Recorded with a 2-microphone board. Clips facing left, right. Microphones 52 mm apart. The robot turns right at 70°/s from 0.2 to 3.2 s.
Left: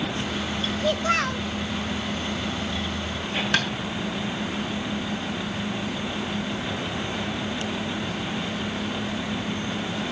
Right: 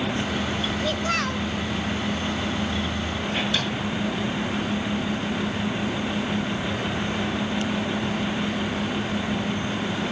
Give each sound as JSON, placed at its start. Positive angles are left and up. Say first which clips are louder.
{"t": 0.8, "sound": "a child speaking", "louder": "left 4 dB", "side_deg": 20, "distance_m": 0.6}
{"t": 3.5, "sound": "tapping", "louder": "left 3 dB", "side_deg": 60, "distance_m": 6.0}